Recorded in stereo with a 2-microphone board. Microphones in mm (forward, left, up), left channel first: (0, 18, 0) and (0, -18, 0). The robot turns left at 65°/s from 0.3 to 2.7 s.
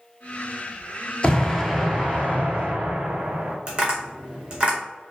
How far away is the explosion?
About 0.5 m.